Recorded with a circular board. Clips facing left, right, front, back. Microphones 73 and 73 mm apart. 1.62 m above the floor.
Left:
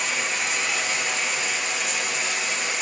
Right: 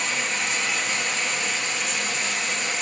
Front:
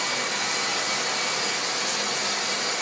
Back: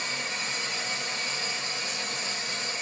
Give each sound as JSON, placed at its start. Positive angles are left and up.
{"t": 0.0, "sound": "running water", "azimuth_deg": 0, "distance_m": 1.1}